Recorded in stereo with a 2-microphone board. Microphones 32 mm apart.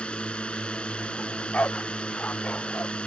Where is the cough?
No cough in this recording.